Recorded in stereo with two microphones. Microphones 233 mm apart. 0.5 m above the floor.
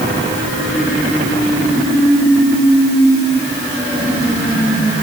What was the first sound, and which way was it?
Only background noise.